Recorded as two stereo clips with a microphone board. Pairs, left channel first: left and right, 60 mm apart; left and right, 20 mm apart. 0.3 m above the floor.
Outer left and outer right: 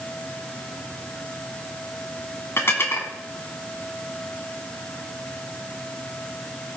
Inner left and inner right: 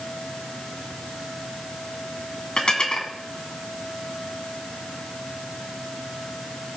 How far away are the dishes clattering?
About 1.7 m.